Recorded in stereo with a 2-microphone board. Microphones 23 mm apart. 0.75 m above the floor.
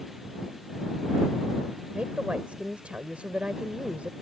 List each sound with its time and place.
1.9 s a woman speaking: 75° right (ahead or behind)